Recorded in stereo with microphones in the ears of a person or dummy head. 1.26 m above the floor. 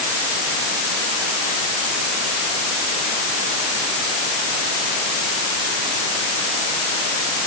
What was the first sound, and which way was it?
Only background noise.